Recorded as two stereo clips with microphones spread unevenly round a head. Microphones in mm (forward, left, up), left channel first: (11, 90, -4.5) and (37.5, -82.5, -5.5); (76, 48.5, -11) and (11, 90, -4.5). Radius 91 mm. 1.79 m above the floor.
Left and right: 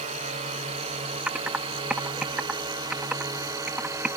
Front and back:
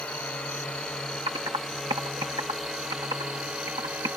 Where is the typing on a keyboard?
165° right.